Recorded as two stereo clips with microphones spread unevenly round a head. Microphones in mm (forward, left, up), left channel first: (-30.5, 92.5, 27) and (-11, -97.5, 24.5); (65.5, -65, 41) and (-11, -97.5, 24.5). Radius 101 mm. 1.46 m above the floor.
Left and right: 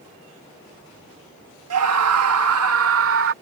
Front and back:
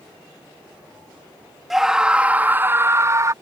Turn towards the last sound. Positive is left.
turn(degrees=-105)